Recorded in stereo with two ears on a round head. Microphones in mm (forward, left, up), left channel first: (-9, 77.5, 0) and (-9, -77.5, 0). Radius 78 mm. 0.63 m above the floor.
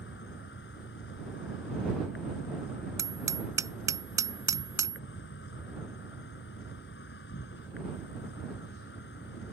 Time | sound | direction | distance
0.0 | an insect | 65° left (ahead or behind) | ?
3.0 | hammering | 20° right (ahead or behind) | ?